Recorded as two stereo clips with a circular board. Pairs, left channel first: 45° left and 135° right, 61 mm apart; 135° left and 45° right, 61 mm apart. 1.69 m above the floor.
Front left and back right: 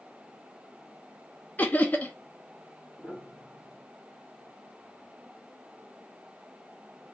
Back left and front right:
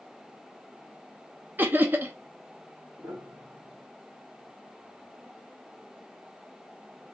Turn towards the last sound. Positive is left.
turn(degrees=-50)